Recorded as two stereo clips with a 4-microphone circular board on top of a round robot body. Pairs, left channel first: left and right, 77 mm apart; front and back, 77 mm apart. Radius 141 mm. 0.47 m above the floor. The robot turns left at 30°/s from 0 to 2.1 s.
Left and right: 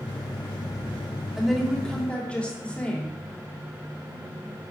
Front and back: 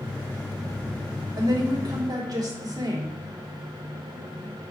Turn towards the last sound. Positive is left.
turn(degrees=165)